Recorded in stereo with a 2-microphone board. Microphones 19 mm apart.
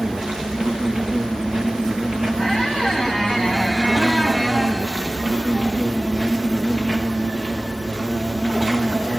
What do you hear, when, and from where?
0.0 s an insect: 45° right (ahead or behind), 1.7 m
2.4 s a squeak: 15° right (ahead or behind), 2 m